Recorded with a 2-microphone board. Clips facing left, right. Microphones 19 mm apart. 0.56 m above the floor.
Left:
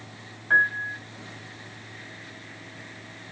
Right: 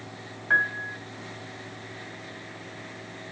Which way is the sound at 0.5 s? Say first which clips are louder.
Left 3 dB; 15° right (ahead or behind).